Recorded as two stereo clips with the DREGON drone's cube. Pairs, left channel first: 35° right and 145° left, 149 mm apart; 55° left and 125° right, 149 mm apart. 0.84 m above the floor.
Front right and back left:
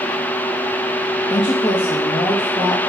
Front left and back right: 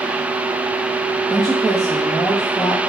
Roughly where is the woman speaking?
Ahead right.